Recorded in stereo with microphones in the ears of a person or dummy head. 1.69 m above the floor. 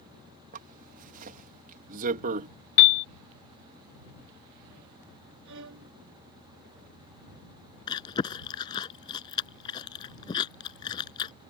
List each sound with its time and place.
0.5 s a zipper: 40° right (ahead or behind)
2.8 s a piano: 70° left (ahead or behind)
5.5 s a violin: 75° right (ahead or behind)
7.9 s chewing: 30° left (ahead or behind)